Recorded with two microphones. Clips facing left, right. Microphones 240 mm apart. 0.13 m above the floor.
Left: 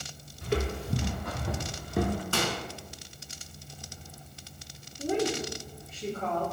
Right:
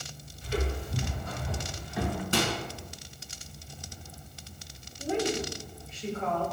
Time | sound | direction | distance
0.4 | footsteps | 65° left (ahead or behind) | 1.0 m
2.3 | a microwave | 20° right (ahead or behind) | 0.9 m
5.0 | a woman speaking | 55° left (ahead or behind) | 2 m